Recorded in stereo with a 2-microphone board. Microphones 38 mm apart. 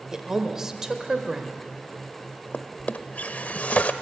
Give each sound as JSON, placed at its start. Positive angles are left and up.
{"t": 0.1, "sound": "a woman speaking", "side_deg": -10, "distance_m": 1.2}
{"t": 2.5, "sound": "a drawer", "side_deg": 40, "distance_m": 0.7}